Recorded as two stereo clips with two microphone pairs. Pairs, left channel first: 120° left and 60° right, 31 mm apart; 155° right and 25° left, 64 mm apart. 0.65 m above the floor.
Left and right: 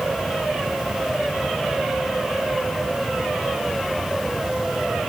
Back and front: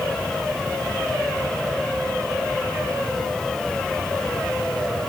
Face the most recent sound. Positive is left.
No sound to turn to.